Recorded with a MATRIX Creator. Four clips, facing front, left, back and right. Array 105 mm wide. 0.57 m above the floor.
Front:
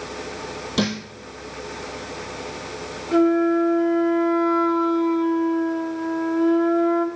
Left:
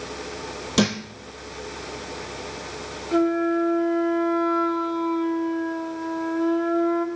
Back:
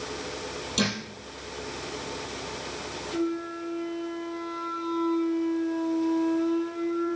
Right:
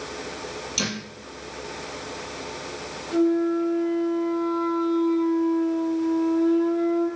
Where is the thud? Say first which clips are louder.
Left 11 dB, front 5 dB; 60° left, 3 m.